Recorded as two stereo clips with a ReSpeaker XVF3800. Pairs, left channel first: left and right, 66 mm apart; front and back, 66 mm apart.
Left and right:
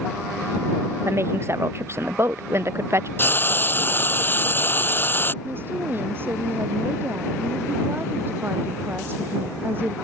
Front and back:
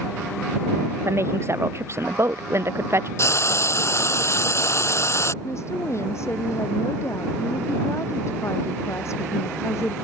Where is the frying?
35° left.